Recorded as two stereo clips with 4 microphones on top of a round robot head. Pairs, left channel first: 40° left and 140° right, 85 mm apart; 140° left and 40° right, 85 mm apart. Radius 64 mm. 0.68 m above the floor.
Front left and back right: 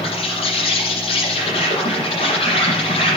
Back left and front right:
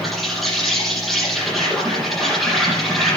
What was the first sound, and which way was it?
An insect, 50° left.